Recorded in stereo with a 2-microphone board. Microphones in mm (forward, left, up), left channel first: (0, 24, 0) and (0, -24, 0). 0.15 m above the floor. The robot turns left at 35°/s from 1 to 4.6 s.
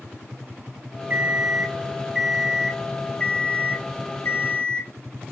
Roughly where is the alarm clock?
Behind right.